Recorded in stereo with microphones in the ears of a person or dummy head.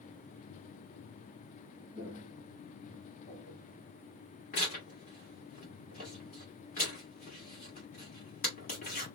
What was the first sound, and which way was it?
Footsteps, 10° left (ahead or behind).